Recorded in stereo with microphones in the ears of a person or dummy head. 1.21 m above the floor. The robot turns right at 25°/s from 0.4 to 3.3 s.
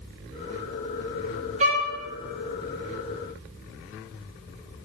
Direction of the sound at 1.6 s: 35° right (ahead or behind).